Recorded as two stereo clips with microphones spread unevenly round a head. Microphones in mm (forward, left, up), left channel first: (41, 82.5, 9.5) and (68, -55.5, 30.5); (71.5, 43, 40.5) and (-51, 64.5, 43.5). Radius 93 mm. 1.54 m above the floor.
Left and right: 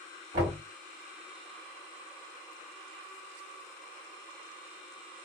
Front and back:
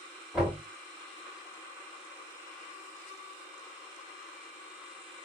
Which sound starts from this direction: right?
Knocking, at 0.3 s.